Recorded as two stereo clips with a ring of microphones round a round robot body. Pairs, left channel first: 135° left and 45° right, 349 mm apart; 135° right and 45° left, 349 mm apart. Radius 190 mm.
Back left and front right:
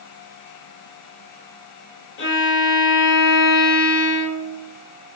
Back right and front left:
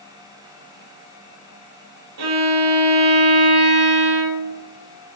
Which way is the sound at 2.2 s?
75° left.